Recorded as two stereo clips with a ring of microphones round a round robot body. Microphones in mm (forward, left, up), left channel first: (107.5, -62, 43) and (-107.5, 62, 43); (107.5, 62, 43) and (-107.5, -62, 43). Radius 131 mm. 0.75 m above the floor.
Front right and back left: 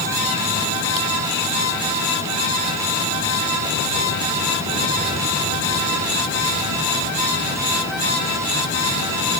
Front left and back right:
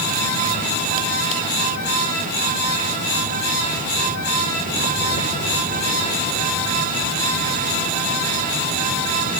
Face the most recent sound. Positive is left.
No sound to turn to.